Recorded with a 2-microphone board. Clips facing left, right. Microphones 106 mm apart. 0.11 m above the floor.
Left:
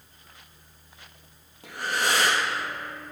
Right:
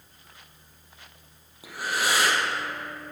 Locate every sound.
1.6 s breathing: 5° right (ahead or behind), 1.8 m